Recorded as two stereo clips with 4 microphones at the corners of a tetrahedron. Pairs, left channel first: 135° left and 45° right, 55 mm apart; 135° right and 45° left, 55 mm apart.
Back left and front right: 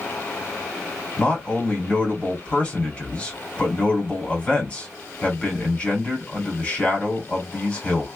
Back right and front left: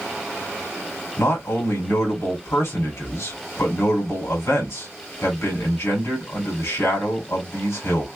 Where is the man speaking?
160° right, 2.5 m.